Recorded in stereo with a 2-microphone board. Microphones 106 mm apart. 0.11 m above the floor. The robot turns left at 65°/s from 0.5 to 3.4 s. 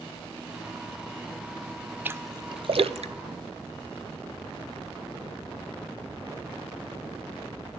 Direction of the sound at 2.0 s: 15° right (ahead or behind).